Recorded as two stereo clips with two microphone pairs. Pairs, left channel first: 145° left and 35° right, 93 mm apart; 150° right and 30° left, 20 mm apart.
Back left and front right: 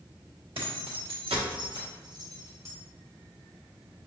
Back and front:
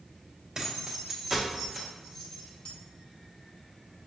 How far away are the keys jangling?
About 1.2 m.